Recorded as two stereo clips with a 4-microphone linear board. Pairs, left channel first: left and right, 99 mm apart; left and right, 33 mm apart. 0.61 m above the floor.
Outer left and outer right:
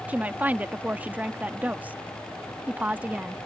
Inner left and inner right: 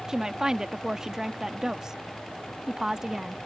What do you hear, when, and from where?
0.1 s a woman speaking: 15° right (ahead or behind)